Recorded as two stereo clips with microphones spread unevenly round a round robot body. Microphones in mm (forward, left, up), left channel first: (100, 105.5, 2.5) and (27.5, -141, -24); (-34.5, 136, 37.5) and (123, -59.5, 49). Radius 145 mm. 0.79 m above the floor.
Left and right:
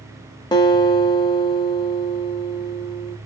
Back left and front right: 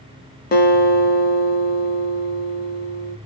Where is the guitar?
120° left, 0.6 m.